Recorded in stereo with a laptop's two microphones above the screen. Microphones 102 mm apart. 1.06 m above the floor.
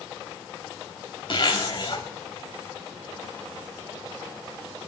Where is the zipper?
50° left (ahead or behind), 0.8 m.